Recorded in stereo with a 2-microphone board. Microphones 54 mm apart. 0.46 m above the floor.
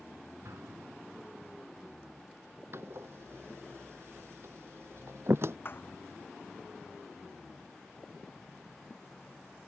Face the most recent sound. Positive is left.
turn(degrees=40)  # may be behind; listen again after turning